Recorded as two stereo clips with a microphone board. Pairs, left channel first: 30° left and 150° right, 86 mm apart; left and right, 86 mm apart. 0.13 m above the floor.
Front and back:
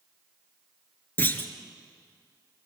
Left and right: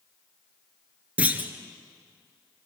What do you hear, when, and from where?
1.2 s a clunk: 25° right, 1.5 m